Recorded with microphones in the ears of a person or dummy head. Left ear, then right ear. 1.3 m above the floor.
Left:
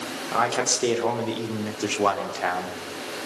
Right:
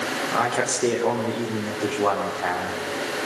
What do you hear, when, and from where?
0.3 s a man speaking: 30° left (ahead or behind), 4 m; by 2.8 s 80° left, 3.5 m